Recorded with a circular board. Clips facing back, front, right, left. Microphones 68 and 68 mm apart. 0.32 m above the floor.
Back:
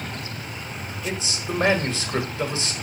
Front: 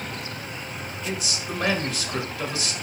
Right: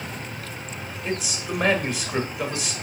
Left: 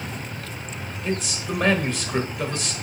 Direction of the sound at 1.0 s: 170° right.